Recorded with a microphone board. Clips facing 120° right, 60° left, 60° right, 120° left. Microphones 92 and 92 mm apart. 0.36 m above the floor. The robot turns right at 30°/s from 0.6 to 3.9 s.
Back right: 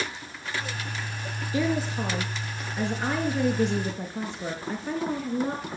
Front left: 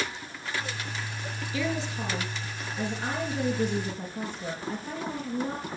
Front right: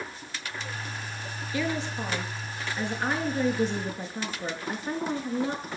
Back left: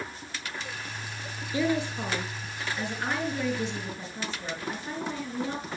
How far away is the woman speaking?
About 6 m.